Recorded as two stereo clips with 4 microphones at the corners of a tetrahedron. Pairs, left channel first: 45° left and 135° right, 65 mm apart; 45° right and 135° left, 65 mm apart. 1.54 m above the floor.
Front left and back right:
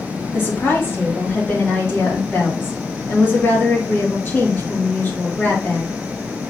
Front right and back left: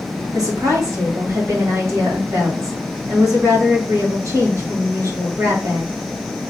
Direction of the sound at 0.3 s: 100° left.